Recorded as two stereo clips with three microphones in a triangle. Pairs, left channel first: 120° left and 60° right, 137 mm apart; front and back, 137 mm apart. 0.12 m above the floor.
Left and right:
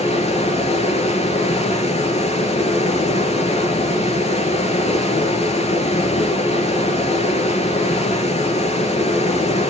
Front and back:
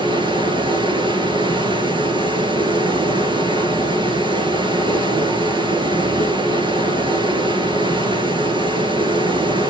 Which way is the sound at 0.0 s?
135° left.